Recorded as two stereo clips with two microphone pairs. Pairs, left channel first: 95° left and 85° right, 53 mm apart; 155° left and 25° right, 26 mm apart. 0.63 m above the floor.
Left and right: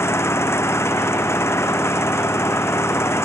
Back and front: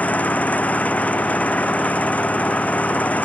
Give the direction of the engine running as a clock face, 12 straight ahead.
8 o'clock.